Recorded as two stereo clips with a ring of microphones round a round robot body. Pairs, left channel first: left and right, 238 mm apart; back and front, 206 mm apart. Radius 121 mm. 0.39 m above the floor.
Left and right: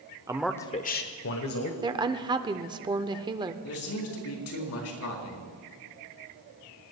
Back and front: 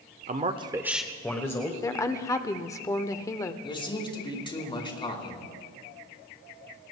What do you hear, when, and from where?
0.3 s a man speaking: 20° right, 1.0 m; by 1.7 s 105° left, 1.9 m
1.8 s a woman speaking: 130° right, 0.9 m
3.6 s a man speaking: 115° left, 4.5 m